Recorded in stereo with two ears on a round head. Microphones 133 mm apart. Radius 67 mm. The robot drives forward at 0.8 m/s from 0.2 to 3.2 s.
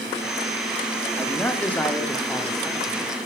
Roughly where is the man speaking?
Centre.